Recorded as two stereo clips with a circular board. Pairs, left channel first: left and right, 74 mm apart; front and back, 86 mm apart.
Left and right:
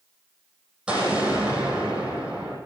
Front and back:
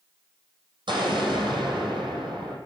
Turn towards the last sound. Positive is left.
turn(degrees=-170)